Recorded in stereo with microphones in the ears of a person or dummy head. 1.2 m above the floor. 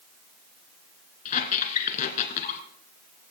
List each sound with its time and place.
1.2 s a squeak: 40° left (ahead or behind), 2 m